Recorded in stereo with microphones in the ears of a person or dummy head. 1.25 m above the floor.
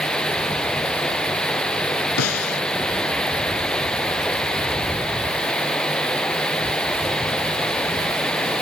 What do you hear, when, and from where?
0.0 s running water: 5° left (ahead or behind)
2.2 s a snare drum: 85° left